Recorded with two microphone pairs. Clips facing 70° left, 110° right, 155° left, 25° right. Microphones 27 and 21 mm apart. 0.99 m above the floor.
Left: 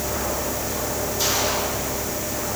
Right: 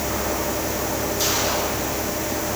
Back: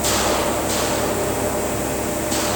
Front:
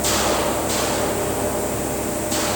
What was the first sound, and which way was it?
Only background noise.